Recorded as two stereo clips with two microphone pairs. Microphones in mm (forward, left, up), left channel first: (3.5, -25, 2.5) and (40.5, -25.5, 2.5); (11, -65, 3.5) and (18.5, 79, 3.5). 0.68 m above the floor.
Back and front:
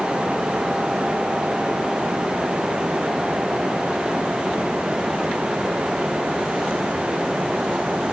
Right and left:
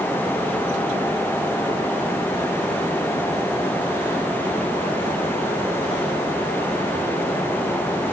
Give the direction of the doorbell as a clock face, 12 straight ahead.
No doorbell in this recording.